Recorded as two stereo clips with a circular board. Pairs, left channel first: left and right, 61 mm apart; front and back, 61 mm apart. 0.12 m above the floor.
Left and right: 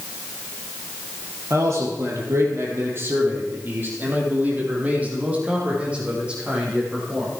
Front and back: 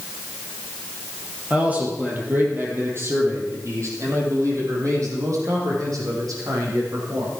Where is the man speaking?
115° right, 3 m; by 7.3 s 165° right, 6 m.